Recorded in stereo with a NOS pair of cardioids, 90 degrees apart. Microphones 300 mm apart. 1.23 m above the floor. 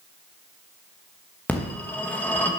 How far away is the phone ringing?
About 1.0 m.